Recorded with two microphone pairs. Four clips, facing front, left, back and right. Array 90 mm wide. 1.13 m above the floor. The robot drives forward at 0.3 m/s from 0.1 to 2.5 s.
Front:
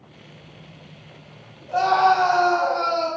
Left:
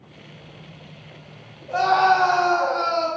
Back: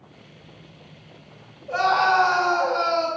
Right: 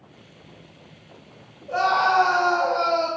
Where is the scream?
170° right, 1.5 m.